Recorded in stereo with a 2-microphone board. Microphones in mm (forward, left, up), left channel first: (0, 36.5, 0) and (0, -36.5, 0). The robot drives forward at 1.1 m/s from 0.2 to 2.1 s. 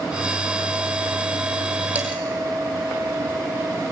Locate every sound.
1.9 s dishes clattering: 20° right (ahead or behind), 4.5 m